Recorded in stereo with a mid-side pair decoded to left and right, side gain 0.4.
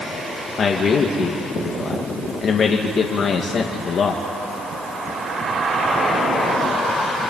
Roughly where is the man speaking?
Ahead left.